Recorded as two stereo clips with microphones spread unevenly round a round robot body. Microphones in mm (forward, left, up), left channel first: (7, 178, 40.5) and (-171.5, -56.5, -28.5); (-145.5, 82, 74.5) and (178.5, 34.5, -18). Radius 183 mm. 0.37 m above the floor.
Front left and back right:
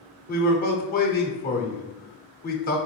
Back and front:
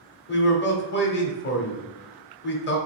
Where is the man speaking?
110° left, 1.0 m.